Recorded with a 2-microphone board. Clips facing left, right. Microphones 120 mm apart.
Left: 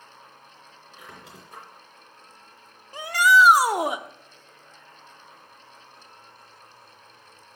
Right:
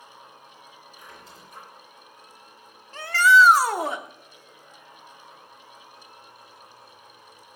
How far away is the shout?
About 0.8 m.